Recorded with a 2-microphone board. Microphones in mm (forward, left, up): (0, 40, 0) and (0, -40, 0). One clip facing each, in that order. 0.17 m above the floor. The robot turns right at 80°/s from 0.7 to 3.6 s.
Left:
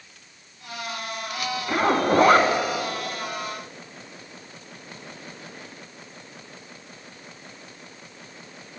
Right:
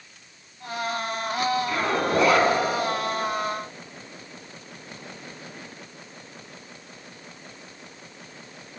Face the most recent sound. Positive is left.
turn(degrees=-160)